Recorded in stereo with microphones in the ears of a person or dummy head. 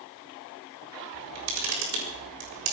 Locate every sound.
1.1 s a camera shutter: 90° right, 5.5 m